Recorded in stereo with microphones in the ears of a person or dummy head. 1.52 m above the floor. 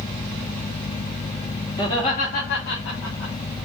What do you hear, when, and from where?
1.8 s laughter: 20° left (ahead or behind), 1.3 m; by 3.3 s 75° left (ahead or behind), 1.5 m